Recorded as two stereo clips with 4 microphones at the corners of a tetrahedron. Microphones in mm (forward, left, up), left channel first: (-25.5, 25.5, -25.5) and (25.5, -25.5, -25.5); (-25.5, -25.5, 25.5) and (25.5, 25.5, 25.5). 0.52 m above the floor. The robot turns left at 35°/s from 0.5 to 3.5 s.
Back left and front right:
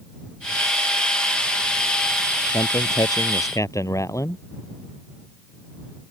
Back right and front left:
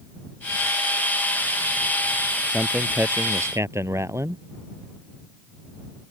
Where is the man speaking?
125° left; by 4.4 s 90° left.